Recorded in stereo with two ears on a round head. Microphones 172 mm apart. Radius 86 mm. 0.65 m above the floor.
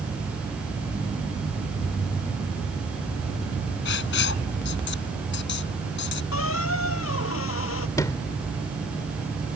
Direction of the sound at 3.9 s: 65° left (ahead or behind).